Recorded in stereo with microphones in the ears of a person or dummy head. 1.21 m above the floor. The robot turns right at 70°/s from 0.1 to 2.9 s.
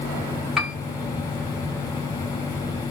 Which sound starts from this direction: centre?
A piano, at 0.6 s.